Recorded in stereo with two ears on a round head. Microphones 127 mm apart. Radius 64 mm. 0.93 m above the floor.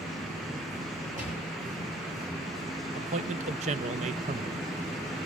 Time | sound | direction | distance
1.2 | a gunshot | 60° right (ahead or behind) | 10 m
3.0 | a man speaking | 50° right (ahead or behind) | 0.6 m